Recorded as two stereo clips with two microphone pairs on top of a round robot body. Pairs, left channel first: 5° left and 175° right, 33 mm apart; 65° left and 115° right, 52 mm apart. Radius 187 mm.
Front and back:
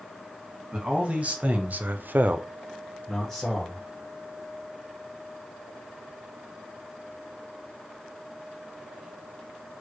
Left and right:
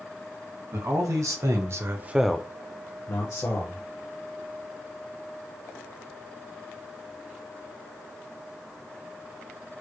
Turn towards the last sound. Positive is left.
turn(degrees=85)